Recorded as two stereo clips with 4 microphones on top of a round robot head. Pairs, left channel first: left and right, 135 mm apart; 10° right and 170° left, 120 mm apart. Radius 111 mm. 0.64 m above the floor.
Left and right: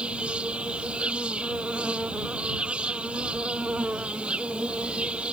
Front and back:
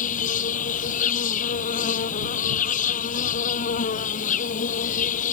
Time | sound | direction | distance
0.0 | an insect | 5° right | ?